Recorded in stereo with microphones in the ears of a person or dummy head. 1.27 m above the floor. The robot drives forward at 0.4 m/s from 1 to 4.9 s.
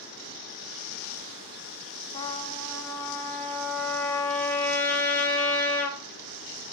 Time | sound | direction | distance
2.1 | a trumpet | 15° left (ahead or behind) | 1.2 m